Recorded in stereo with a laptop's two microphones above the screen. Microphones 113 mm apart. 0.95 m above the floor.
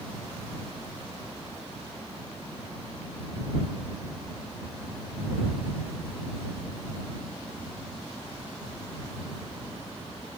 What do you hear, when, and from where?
Only background noise.